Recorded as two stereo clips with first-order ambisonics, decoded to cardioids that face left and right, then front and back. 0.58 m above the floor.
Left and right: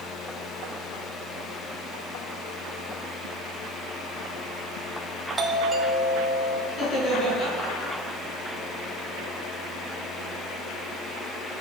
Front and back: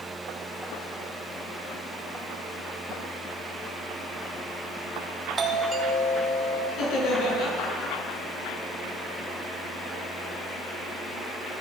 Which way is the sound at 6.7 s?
40° left.